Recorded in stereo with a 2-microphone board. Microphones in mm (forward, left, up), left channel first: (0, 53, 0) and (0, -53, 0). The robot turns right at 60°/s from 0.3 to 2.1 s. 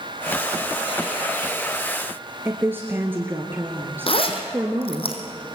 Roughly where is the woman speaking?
Centre.